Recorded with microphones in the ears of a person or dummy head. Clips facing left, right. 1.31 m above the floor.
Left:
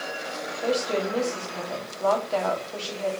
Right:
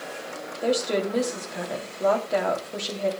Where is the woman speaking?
20° right (ahead or behind), 3.5 m.